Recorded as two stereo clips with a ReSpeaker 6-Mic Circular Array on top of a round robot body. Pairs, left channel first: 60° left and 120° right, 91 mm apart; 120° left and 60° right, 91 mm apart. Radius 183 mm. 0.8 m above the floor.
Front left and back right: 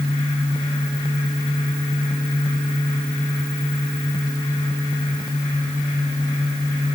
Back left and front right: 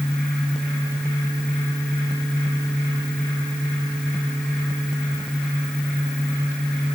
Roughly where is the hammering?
I don't hear hammering.